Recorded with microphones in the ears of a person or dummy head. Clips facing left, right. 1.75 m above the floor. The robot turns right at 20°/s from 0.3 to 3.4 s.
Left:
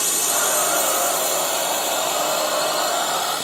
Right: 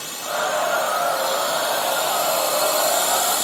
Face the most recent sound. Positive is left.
turn(degrees=180)